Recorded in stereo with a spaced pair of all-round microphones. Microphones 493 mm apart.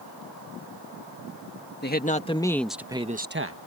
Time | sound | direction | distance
1.8 | a man speaking | 20° left (ahead or behind) | ?